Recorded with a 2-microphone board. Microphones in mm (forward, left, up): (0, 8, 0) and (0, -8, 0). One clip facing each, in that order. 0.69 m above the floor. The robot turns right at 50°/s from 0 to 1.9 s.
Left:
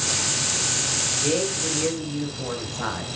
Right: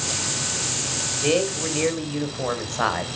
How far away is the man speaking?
About 3 m.